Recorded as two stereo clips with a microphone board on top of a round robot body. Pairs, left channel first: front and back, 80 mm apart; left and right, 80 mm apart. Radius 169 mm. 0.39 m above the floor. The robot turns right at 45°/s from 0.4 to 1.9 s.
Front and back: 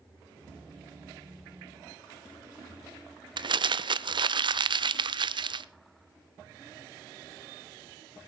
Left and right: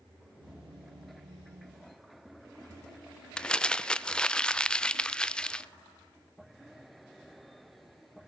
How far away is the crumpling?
About 0.9 m.